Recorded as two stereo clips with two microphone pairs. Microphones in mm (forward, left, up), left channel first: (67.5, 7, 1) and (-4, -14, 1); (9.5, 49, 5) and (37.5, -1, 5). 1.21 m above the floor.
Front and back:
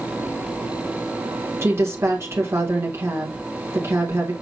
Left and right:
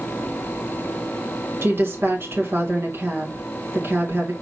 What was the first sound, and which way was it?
A woman speaking, 110° right.